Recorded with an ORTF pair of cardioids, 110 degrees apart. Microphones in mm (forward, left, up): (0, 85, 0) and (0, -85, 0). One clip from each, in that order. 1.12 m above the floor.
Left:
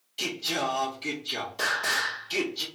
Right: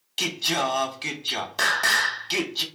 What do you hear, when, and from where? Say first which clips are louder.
0.2 s singing: right 5 dB; 65° right, 0.9 m